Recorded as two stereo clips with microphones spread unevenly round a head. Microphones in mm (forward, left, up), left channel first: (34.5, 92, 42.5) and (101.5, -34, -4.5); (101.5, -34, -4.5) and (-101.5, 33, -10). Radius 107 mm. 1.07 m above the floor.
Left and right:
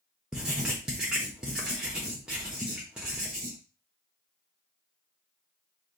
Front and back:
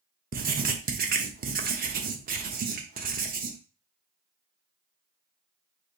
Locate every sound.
0.3 s writing: 145° right, 0.8 m